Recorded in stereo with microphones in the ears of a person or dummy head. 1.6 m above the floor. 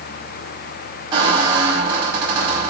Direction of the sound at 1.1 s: 25° right (ahead or behind).